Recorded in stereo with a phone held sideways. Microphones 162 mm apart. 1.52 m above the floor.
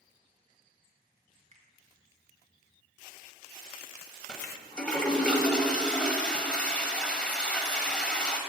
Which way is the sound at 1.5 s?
45° right (ahead or behind).